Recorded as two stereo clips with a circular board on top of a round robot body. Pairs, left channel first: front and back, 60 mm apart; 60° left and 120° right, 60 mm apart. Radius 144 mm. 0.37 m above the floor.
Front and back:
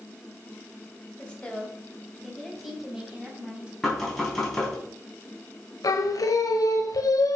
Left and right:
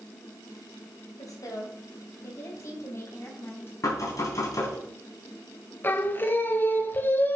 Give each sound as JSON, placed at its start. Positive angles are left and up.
{"t": 1.2, "sound": "a woman speaking", "azimuth_deg": 70, "distance_m": 3.5}
{"t": 3.8, "sound": "knocking", "azimuth_deg": 85, "distance_m": 4.0}
{"t": 5.8, "sound": "singing", "azimuth_deg": 5, "distance_m": 1.2}